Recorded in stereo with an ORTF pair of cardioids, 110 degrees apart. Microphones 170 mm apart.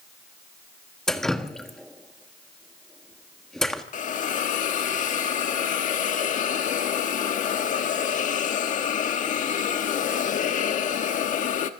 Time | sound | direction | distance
1.1 | dripping | 5° left | 1.6 m
3.9 | a hiss | 50° left | 1.3 m